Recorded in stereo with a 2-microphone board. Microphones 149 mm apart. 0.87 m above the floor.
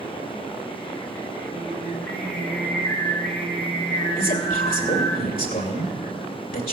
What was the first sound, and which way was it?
Singing, 20° left (ahead or behind).